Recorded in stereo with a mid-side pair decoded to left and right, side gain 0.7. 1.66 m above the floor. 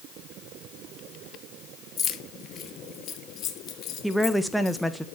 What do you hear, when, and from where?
2.0 s keys jangling: 40° left, 1.9 m; by 4.8 s 45° left, 4.5 m
4.0 s a woman speaking: straight ahead, 1.4 m